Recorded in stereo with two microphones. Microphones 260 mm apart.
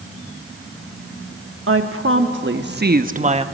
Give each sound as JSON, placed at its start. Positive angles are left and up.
{"t": 1.7, "sound": "a woman speaking", "side_deg": -60, "distance_m": 1.5}